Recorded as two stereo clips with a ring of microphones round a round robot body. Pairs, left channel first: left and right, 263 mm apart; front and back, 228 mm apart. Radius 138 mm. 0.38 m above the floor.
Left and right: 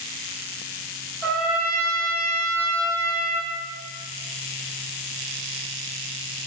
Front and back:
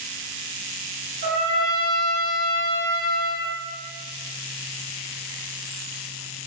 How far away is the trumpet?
About 1.2 m.